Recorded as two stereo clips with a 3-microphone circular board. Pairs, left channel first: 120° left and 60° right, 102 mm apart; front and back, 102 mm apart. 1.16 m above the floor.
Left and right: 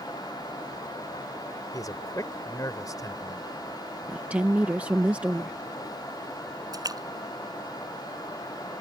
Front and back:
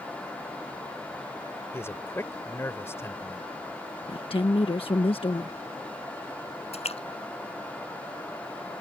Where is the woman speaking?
15° left.